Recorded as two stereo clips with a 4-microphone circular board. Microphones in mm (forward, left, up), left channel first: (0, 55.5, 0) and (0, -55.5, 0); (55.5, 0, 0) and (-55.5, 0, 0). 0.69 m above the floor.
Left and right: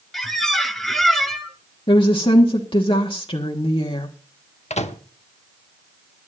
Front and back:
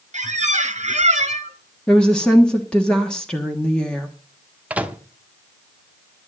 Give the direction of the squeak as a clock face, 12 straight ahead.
6 o'clock.